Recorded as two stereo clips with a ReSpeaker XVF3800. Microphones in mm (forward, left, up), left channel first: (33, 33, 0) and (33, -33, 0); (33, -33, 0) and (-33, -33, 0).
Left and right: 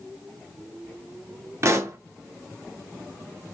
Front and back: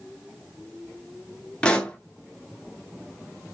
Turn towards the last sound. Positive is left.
turn(degrees=-70)